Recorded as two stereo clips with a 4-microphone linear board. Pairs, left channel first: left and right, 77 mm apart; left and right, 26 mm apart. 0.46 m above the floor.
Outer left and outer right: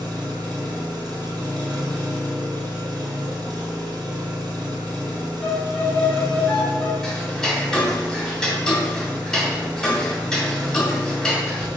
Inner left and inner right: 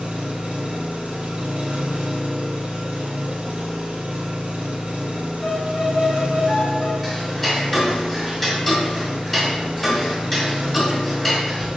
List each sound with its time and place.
0.0 s an engine running: 65° right (ahead or behind), 1.5 m
5.4 s a violin: 20° left (ahead or behind), 2 m
7.0 s ticking: 5° left (ahead or behind), 1.4 m